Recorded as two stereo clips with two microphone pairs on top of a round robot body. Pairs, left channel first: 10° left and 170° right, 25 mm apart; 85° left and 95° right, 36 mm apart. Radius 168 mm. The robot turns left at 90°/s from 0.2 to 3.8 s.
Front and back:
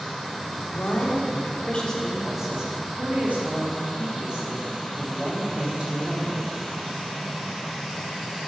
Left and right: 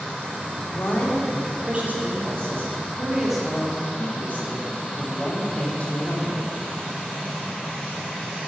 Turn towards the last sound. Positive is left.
turn(degrees=140)